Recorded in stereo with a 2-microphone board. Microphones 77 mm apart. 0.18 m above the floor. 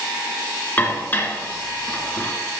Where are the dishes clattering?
25° left (ahead or behind), 1.7 m.